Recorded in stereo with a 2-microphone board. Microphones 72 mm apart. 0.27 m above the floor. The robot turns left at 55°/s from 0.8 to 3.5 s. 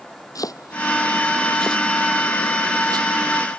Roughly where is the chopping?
Left.